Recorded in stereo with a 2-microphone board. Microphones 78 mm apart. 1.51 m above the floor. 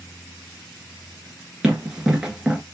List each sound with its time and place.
1.6 s running footsteps: 10° right (ahead or behind), 1.5 m